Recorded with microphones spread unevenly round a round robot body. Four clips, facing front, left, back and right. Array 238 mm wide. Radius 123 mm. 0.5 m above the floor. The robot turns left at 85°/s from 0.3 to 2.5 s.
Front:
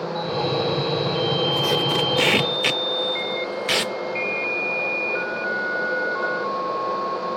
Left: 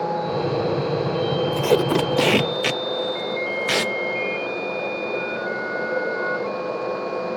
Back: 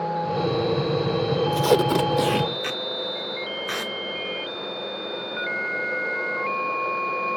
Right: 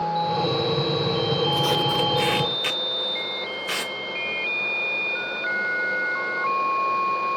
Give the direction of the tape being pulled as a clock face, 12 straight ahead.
7 o'clock.